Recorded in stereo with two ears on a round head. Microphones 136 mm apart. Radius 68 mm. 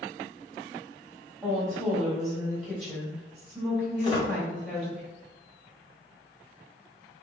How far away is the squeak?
About 1.9 m.